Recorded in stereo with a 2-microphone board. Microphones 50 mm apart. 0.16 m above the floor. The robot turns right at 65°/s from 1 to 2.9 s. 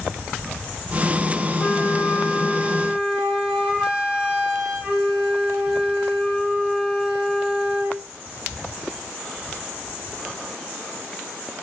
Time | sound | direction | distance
1.6 | a flute | 120° left | 1.8 m